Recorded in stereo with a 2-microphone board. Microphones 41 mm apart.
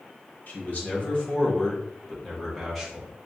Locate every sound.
0.5 s a man speaking: 45° left (ahead or behind), 1.4 m; by 3.1 s centre (ahead or behind), 1.8 m